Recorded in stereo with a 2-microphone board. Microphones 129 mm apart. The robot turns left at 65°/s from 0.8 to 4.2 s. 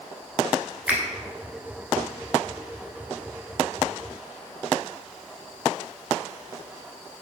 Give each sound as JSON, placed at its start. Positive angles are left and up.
{"t": 0.9, "sound": "a finger snap", "side_deg": -10, "distance_m": 0.8}